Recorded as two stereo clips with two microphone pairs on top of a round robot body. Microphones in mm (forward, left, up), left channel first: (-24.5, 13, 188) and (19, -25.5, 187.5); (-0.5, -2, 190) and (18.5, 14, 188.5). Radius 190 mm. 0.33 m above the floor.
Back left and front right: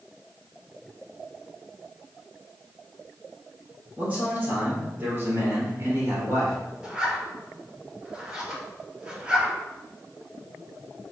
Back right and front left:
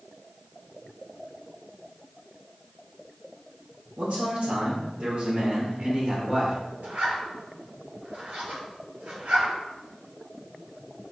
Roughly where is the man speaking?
Ahead.